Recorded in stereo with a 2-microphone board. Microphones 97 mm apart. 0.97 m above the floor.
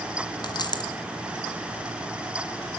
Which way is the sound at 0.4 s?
50° left (ahead or behind).